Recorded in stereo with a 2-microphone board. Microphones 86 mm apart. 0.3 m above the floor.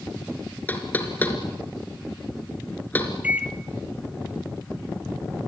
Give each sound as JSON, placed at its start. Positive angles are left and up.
{"t": 0.7, "sound": "knocking", "side_deg": 20, "distance_m": 3.0}
{"t": 3.2, "sound": "a microwave", "side_deg": -15, "distance_m": 0.9}